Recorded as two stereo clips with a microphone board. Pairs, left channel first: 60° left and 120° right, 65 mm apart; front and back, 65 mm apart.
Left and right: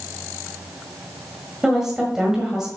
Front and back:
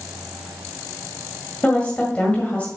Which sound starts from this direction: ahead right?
A woman speaking, at 1.6 s.